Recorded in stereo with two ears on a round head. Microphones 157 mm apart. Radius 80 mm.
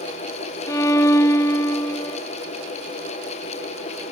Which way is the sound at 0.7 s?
15° left (ahead or behind).